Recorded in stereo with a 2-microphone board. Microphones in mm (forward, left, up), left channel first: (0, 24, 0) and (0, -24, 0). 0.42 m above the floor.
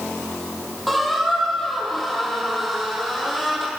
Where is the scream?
I don't hear a scream.